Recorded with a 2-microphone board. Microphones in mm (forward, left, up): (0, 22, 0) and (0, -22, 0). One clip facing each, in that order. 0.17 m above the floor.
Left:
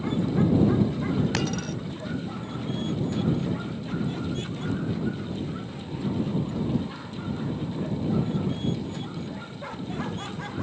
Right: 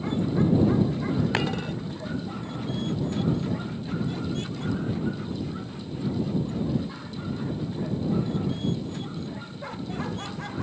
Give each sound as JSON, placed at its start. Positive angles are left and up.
{"t": 1.3, "sound": "a dropped coin", "side_deg": -25}